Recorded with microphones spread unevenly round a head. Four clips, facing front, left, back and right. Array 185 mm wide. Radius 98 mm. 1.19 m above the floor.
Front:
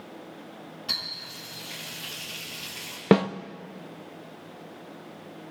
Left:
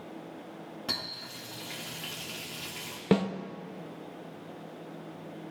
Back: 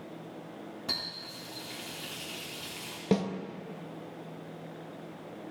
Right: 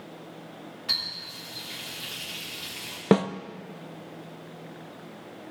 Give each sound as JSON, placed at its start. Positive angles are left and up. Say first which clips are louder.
{"t": 0.9, "sound": "a running tap", "louder": "left 1 dB, even", "azimuth_deg": 125, "distance_m": 1.4}
{"t": 3.1, "sound": "a snare drum", "louder": "right 5 dB, front 8 dB", "azimuth_deg": -30, "distance_m": 0.7}